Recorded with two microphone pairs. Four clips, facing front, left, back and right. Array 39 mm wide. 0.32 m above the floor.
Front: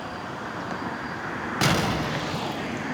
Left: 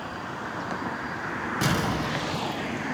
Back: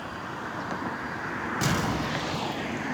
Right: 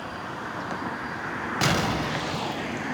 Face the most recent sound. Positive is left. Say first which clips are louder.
# right 2 dB, front 5 dB
turn(degrees=-45)